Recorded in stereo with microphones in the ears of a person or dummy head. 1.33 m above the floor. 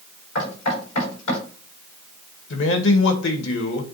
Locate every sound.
0.3 s knocking: 85° left, 5.5 m
2.5 s a man speaking: 65° left (ahead or behind), 1.9 m